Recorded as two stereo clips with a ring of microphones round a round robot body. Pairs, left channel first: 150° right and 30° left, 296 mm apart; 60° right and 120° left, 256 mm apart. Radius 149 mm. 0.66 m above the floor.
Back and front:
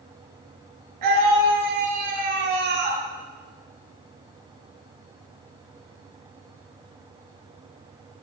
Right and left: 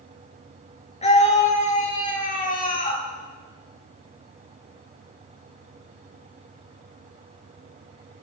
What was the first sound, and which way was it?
A scream, 5° left.